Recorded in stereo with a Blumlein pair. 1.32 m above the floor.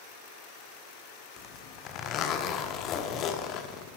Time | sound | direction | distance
1.4 | a zipper | 30° left | 0.9 m